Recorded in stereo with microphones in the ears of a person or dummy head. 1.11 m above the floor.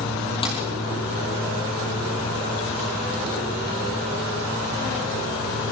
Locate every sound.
0.4 s a dropped coin: 25° left (ahead or behind), 6 m